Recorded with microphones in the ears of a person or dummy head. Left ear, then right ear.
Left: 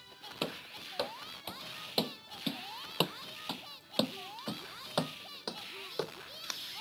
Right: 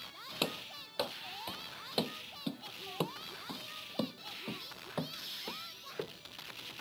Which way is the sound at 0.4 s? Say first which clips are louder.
Right 2 dB; 10° right (ahead or behind).